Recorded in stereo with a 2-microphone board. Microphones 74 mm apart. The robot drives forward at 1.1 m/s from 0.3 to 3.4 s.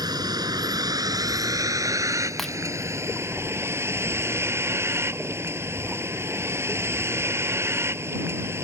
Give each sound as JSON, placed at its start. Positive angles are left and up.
{"t": 0.0, "sound": "a vehicle", "side_deg": -70}
{"t": 2.4, "sound": "breaking glass", "side_deg": 5}